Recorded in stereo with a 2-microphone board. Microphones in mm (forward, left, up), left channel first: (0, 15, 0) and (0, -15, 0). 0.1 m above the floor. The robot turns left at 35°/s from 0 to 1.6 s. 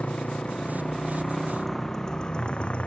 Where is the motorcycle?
45° left (ahead or behind).